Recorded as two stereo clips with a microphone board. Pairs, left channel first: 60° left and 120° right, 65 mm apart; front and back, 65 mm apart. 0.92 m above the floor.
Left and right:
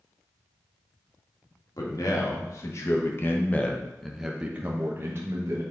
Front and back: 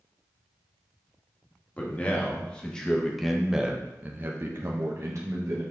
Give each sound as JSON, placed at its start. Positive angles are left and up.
{"t": 1.8, "sound": "a man speaking", "azimuth_deg": 65, "distance_m": 1.7}